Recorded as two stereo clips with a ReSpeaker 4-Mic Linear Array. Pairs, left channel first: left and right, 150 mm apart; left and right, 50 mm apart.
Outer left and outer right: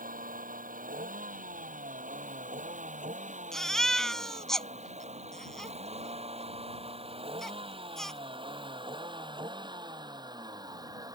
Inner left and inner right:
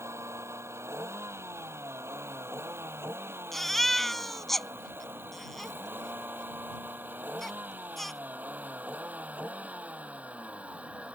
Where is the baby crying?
5° left (ahead or behind).